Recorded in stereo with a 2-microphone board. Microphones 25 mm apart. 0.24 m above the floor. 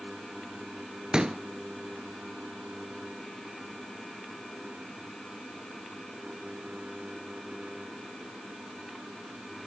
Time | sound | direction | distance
1.1 | a pop | 30° right (ahead or behind) | 0.7 m